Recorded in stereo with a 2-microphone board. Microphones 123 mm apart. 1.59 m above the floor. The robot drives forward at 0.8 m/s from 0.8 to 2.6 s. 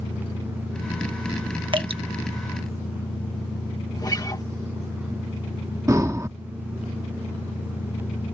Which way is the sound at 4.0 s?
30° left (ahead or behind).